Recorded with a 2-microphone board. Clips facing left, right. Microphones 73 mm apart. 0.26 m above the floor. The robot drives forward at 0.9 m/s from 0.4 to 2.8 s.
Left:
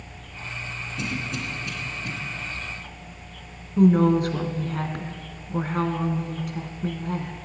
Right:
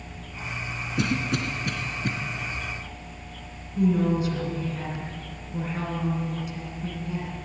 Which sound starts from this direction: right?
A cough, at 1.0 s.